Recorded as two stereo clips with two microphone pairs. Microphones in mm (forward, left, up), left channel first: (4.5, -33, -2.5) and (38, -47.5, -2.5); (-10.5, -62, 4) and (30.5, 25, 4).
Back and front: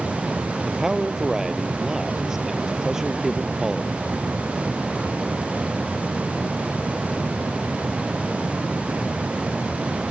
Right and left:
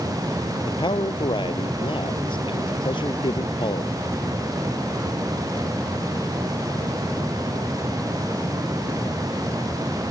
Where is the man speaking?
95° right.